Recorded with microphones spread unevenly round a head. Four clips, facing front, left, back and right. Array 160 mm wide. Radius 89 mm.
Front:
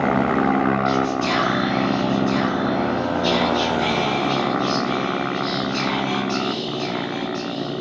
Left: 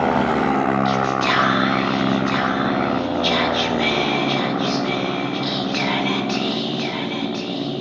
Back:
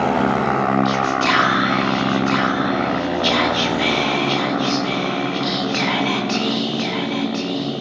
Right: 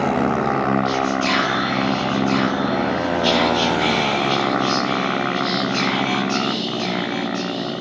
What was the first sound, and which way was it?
Whispering, 170° left.